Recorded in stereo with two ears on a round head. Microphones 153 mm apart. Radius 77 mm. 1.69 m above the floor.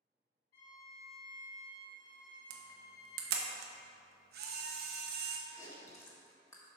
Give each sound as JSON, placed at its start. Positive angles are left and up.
{"t": 0.5, "sound": "a violin", "side_deg": 65, "distance_m": 3.0}
{"t": 2.5, "sound": "a camera shutter", "side_deg": -65, "distance_m": 1.1}
{"t": 5.5, "sound": "chewing", "side_deg": 20, "distance_m": 1.3}